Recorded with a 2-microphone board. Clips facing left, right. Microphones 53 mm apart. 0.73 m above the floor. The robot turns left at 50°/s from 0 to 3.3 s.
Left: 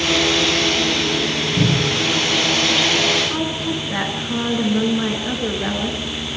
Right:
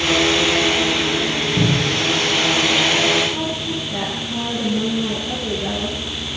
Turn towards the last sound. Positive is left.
turn(degrees=85)